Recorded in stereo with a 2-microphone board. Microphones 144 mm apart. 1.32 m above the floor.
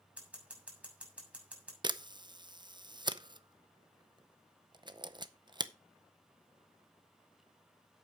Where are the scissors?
10° right (ahead or behind), 6 m.